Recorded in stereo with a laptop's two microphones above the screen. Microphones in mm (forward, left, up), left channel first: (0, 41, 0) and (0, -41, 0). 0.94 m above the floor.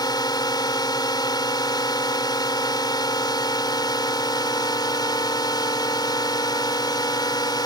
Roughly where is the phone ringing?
No phone ringing in this recording.